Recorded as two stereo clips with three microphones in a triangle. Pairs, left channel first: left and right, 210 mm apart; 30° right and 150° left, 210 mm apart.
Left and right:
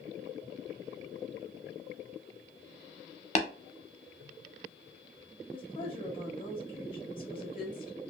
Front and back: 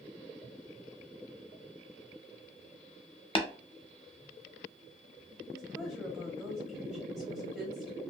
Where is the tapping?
30° left, 0.5 m.